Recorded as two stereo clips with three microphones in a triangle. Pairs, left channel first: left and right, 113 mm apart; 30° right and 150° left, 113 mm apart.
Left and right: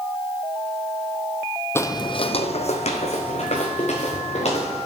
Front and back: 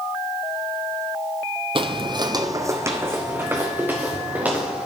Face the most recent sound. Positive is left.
turn(degrees=70)